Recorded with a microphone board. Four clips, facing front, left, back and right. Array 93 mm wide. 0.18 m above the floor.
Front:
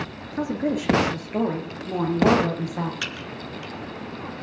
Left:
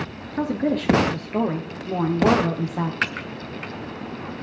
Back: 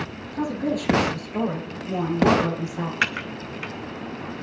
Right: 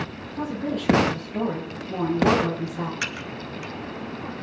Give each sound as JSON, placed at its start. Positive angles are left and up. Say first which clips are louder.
{"t": 0.3, "sound": "a woman speaking", "louder": "left 5 dB, front 1 dB", "azimuth_deg": 65, "distance_m": 2.5}
{"t": 3.0, "sound": "typing on a keyboard", "louder": "left 4 dB, back 6 dB", "azimuth_deg": 140, "distance_m": 0.6}